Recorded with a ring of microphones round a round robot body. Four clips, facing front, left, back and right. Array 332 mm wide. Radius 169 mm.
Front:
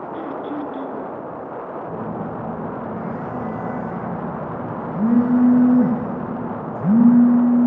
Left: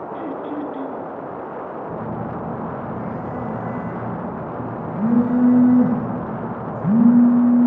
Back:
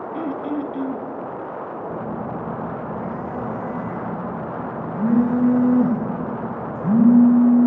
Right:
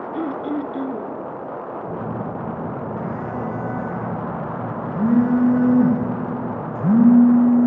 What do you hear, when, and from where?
0.1 s throat clearing: 95° right, 1.0 m
1.9 s a phone buzzing: 60° right, 9.5 m